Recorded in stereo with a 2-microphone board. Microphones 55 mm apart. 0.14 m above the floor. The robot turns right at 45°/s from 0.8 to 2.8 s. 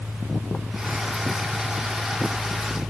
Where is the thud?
No thud in this recording.